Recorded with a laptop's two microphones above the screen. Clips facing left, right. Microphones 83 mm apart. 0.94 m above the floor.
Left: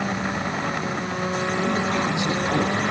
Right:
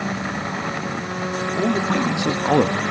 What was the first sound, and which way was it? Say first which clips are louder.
A man speaking: right 5 dB; 60° right (ahead or behind).